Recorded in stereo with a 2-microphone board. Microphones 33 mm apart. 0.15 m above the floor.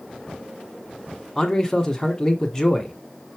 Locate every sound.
1.4 s a man speaking: 15° left (ahead or behind), 1.4 m